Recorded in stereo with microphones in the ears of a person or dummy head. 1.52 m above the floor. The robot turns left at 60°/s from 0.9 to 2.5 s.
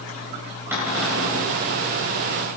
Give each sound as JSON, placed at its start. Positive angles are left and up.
{"t": 0.7, "sound": "a cupboard door", "azimuth_deg": -175, "distance_m": 2.5}